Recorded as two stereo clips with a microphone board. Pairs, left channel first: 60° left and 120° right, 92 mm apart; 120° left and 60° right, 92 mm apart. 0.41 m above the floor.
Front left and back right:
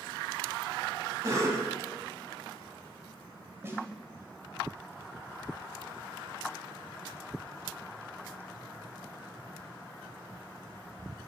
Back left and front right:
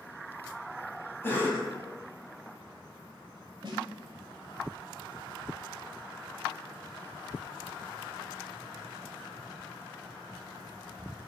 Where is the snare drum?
65° right, 1.3 m.